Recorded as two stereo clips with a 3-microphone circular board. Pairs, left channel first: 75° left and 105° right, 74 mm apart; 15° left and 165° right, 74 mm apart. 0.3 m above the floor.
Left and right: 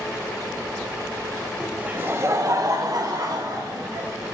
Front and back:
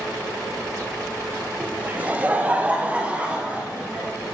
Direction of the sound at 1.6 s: 175° right.